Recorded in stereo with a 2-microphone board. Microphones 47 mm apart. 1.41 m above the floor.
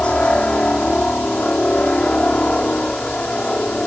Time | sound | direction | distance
0.0 | a helicopter | 25° left (ahead or behind) | ?